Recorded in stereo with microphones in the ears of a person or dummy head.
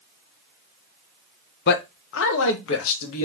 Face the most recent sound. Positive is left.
turn(degrees=75)  # may be behind; listen again after turning